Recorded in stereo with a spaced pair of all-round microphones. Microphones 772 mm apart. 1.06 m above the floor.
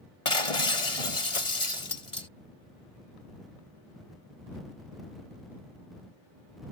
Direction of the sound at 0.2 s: 45° left (ahead or behind).